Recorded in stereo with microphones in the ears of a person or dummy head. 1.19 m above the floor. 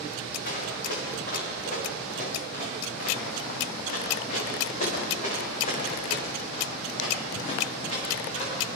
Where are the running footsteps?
55° left (ahead or behind), 7.5 m; by 8.8 s 40° left (ahead or behind), 11.5 m.